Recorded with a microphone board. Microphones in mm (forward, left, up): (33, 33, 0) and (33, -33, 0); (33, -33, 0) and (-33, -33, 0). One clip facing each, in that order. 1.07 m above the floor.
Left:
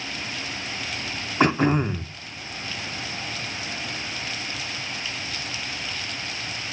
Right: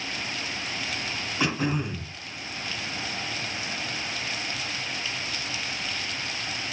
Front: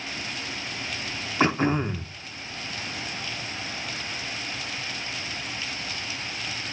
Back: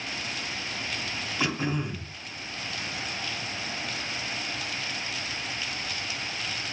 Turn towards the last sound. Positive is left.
turn(degrees=45)